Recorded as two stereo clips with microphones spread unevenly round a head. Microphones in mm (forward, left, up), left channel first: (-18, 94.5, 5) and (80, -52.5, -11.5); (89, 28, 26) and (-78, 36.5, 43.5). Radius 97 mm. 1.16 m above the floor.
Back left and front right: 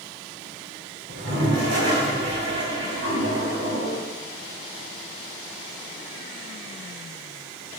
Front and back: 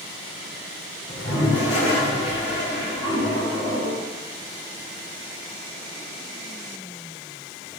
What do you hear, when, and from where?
1.1 s a toilet flushing: 35° right, 3.5 m